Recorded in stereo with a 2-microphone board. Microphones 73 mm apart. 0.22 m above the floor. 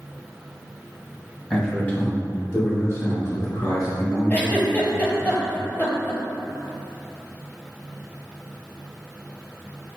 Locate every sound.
1.5 s a man speaking: 10° left (ahead or behind), 1.3 m; by 5.3 s 60° left (ahead or behind), 3 m
4.3 s a giggle: 25° left (ahead or behind), 0.7 m